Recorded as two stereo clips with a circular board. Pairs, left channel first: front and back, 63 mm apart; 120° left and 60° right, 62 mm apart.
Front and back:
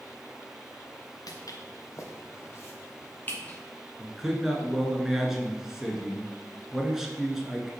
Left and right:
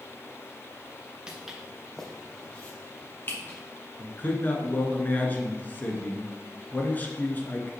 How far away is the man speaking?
About 1.2 m.